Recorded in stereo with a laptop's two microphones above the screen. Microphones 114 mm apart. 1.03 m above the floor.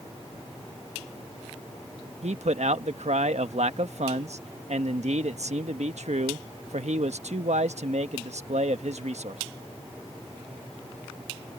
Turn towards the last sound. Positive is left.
turn(degrees=-75)  # may be behind; listen again after turning